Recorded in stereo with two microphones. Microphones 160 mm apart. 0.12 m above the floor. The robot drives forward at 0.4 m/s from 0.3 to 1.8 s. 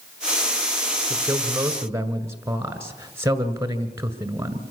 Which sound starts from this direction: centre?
A man speaking, at 1.1 s.